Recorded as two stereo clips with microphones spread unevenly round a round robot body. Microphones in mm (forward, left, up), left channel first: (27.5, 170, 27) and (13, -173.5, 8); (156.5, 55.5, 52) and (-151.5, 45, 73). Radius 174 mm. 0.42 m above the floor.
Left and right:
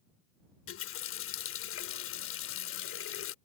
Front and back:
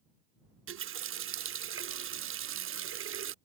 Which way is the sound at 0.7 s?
135° left.